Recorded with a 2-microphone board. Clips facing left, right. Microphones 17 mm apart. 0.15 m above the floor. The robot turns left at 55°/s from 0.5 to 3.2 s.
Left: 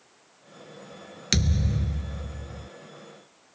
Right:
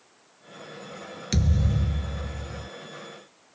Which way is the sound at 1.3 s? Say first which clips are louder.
Left 1 dB; 40° left.